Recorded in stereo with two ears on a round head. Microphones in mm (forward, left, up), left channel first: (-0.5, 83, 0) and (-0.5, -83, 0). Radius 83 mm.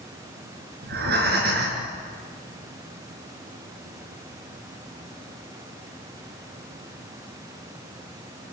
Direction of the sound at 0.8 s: 55° right (ahead or behind).